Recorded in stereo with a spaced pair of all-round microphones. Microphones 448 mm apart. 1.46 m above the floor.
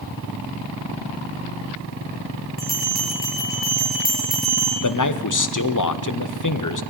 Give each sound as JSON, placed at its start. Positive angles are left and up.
{"t": 2.6, "sound": "a bell", "side_deg": -20, "distance_m": 5.5}
{"t": 4.8, "sound": "a man speaking", "side_deg": 45, "distance_m": 0.8}